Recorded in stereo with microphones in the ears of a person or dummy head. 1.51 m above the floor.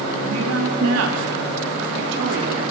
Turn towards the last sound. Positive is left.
turn(degrees=-55)  # may be behind; listen again after turning